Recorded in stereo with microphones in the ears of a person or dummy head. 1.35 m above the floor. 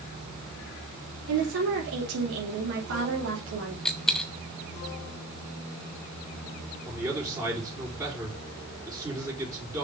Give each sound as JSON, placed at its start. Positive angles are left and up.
{"t": 1.3, "sound": "a woman speaking", "side_deg": -70, "distance_m": 3.0}
{"t": 3.9, "sound": "a dropped coin", "side_deg": 5, "distance_m": 0.8}
{"t": 6.8, "sound": "a man speaking", "side_deg": -15, "distance_m": 4.5}